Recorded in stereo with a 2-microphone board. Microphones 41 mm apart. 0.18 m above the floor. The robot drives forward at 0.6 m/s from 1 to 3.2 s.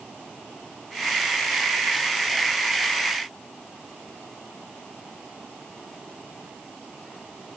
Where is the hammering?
I don't hear hammering.